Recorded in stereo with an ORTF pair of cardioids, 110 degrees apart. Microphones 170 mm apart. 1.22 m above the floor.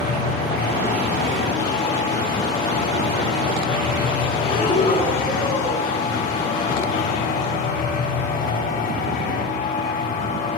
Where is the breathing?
35° left, 8 m.